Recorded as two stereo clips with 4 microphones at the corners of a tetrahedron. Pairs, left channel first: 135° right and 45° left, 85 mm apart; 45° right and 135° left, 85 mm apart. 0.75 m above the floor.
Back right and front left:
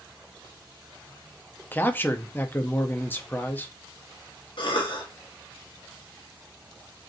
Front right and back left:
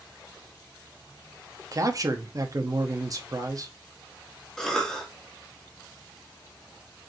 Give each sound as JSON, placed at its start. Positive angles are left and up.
{"t": 1.7, "sound": "a man speaking", "azimuth_deg": 165, "distance_m": 0.7}
{"t": 4.6, "sound": "a cough", "azimuth_deg": -130, "distance_m": 1.1}